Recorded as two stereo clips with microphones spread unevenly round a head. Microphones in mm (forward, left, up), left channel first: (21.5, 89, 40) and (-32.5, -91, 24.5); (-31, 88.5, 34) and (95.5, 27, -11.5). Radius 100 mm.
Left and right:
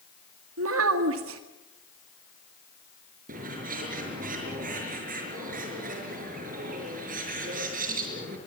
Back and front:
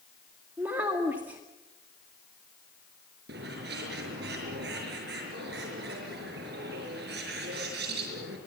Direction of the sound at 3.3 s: 55° right.